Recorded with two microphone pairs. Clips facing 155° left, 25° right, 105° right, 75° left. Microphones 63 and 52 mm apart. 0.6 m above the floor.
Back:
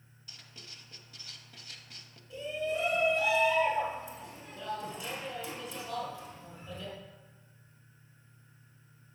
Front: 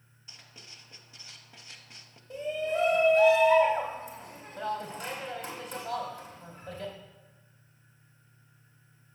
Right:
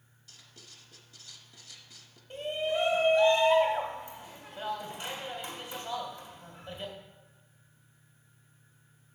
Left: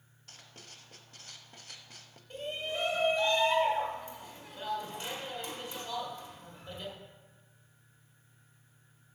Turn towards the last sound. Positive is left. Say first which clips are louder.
# front 3 dB, right 6 dB
turn(degrees=-30)